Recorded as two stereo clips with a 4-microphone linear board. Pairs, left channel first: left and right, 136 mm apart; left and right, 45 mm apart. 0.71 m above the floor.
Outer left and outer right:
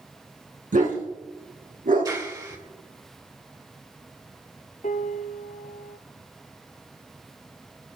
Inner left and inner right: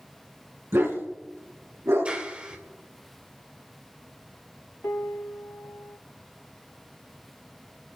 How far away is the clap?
About 2 m.